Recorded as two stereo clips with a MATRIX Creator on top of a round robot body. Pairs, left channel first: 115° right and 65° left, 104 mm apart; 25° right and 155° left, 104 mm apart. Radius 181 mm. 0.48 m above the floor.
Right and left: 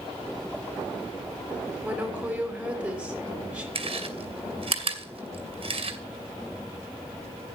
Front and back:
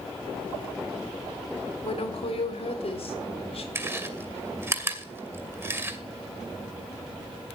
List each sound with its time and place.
1.8 s a woman speaking: 10° right, 4 m
3.8 s chewing: 95° left, 2.5 m